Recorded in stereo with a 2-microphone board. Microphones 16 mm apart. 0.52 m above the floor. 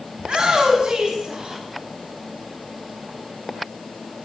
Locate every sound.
0.2 s a shout: 75° right (ahead or behind), 5.5 m